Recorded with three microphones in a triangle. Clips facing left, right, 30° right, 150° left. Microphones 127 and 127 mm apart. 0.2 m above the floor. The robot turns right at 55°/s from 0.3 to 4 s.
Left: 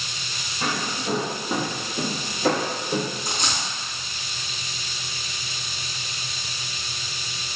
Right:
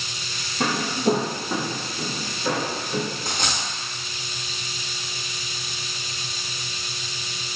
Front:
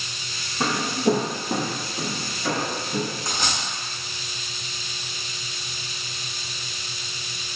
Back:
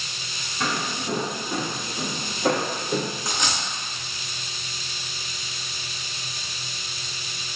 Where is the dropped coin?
120° right, 0.9 m; by 3.6 s 100° right, 0.9 m.